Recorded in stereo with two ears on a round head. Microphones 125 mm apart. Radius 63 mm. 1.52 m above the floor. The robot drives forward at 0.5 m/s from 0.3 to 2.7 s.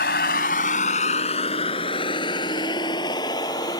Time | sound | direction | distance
0.0 | a vehicle | 80° left | ?